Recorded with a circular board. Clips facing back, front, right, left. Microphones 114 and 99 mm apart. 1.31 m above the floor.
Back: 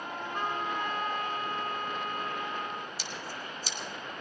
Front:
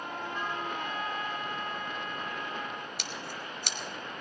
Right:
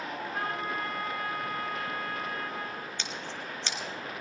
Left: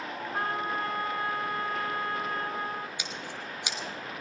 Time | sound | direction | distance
0.3 | a trumpet | 145° left | 2 m
3.0 | scissors | 15° left | 1.3 m